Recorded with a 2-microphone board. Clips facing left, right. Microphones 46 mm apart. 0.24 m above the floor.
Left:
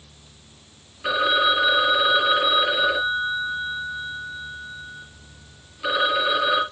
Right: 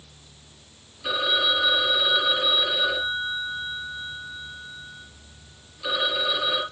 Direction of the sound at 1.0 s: 30° left (ahead or behind).